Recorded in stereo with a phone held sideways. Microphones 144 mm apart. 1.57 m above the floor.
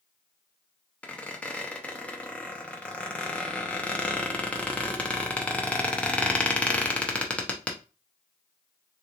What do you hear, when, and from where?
1.0 s a squeak: 10° left (ahead or behind), 0.7 m